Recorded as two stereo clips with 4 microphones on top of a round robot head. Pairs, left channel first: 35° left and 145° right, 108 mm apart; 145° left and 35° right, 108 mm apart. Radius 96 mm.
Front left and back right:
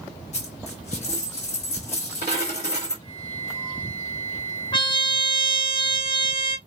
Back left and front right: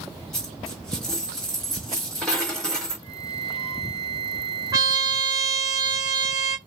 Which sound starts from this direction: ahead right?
A flute, at 3.0 s.